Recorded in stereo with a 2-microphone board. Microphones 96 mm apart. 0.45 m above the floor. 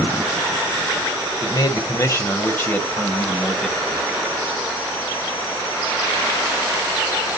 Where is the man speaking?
45° left (ahead or behind), 1.9 m; by 4.1 s 5° right (ahead or behind), 2 m.